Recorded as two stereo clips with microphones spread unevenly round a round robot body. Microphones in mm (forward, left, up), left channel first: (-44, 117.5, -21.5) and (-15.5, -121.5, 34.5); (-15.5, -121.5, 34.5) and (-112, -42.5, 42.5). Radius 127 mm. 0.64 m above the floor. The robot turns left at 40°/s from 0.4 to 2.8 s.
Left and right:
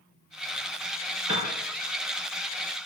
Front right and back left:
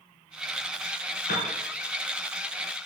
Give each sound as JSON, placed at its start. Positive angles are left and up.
{"t": 1.3, "sound": "a piano", "azimuth_deg": -5, "distance_m": 4.0}